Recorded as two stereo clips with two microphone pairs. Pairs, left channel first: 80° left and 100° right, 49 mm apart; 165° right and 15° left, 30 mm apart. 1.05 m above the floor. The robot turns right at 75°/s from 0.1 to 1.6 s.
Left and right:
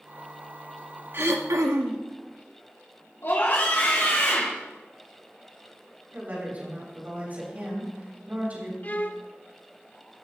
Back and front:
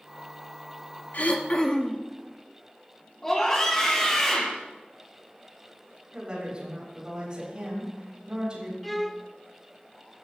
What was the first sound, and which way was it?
Throat clearing, 140° right.